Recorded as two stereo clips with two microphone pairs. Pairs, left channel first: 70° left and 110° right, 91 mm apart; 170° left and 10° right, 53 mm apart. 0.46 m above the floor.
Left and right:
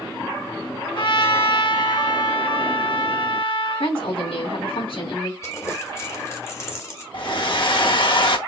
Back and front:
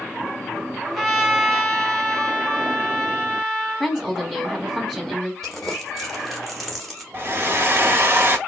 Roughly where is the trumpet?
Left.